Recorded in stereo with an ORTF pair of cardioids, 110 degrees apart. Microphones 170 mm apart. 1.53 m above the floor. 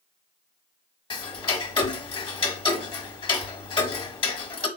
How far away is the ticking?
About 1.2 m.